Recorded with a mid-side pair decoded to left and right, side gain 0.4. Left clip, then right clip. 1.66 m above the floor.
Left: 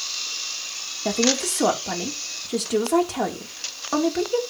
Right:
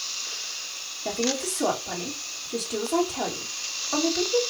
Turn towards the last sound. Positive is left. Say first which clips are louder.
# left 5 dB
turn(degrees=60)